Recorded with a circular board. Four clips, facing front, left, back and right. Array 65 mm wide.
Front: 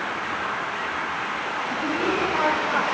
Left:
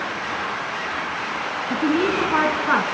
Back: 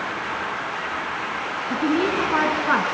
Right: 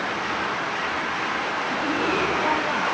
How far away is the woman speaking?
About 4.5 m.